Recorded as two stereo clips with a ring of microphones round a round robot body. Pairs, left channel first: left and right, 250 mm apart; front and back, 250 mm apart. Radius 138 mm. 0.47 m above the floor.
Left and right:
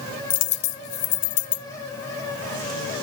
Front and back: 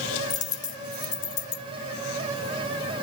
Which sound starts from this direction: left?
A dropped coin, at 0.3 s.